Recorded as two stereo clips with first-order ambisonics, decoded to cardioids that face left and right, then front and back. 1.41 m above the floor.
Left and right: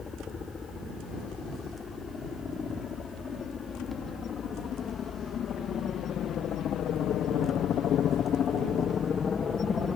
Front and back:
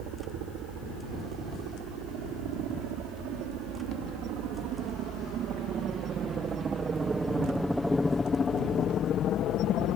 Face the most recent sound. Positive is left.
turn(degrees=20)